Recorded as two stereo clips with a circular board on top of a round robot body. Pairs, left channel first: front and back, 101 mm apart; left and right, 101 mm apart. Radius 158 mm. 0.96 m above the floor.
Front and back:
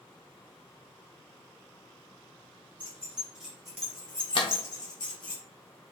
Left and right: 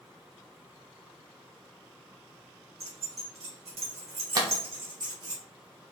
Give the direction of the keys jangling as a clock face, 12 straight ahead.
3 o'clock.